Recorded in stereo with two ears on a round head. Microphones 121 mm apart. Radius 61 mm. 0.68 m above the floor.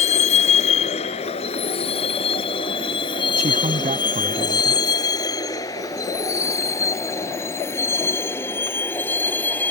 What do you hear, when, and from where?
0.0 s a vehicle: 55° left (ahead or behind); by 9.7 s 15° left (ahead or behind)
3.4 s a man speaking: 50° right (ahead or behind)